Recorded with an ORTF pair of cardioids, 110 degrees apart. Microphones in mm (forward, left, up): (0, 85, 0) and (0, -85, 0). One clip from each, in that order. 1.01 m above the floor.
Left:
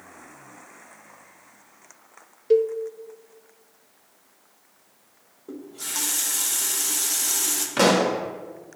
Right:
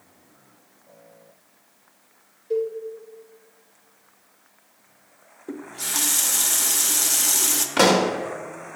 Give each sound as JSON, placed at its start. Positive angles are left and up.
{"t": 2.5, "sound": "a cowbell", "azimuth_deg": 60, "distance_m": 0.5}
{"t": 5.5, "sound": "a running tap", "azimuth_deg": -25, "distance_m": 0.6}
{"t": 7.8, "sound": "a pop", "azimuth_deg": -20, "distance_m": 1.0}